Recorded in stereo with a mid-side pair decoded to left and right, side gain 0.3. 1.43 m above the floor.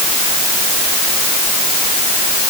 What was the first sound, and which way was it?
Only background noise.